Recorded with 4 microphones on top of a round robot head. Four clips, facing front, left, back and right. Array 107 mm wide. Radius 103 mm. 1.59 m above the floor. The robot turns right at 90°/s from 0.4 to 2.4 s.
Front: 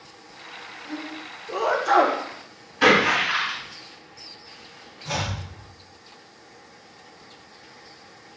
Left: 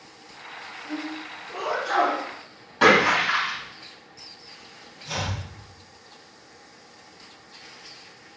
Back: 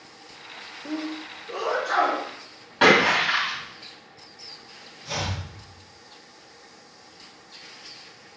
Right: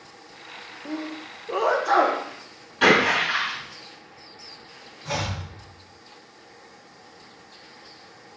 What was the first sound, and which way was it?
A sneeze, 135° right.